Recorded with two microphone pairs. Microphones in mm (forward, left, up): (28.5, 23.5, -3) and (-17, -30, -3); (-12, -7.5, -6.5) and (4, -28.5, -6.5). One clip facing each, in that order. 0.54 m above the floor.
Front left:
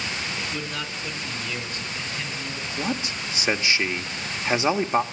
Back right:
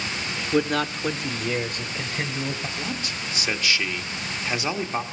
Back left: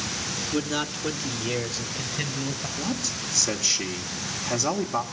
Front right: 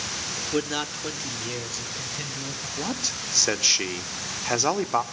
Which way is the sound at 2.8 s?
10° right.